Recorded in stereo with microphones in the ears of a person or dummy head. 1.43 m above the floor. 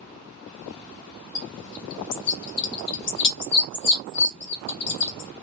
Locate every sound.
1.4 s a bird: 65° left (ahead or behind), 1.7 m